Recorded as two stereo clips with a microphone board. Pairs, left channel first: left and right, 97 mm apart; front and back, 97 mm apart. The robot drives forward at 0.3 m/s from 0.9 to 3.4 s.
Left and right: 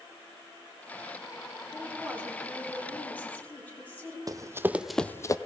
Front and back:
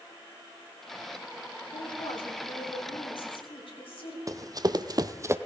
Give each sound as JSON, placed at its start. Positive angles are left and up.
{"t": 1.7, "sound": "a woman speaking", "azimuth_deg": 15, "distance_m": 4.0}
{"t": 4.3, "sound": "running footsteps", "azimuth_deg": -135, "distance_m": 0.8}